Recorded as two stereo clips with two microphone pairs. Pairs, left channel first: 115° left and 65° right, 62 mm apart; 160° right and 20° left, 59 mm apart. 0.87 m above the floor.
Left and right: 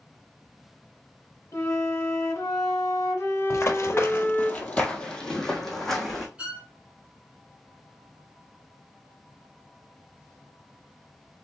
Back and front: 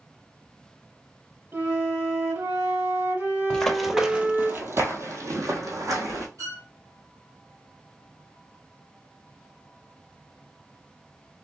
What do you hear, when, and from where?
1.5 s a flute: 65° left, 1.8 m
3.5 s running footsteps: 130° left, 1.2 m; by 6.2 s 25° left, 3 m
6.4 s a violin: 10° left, 2 m